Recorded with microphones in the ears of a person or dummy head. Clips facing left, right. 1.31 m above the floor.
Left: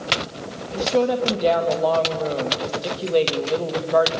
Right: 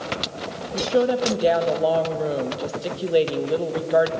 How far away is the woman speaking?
About 1.5 m.